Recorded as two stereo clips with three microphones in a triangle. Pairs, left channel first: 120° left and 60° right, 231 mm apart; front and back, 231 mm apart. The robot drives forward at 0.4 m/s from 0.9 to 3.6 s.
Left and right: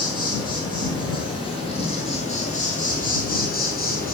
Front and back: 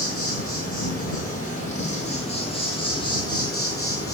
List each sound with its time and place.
0.0 s an insect: 50° left, 3 m; by 4.2 s 75° left, 2.5 m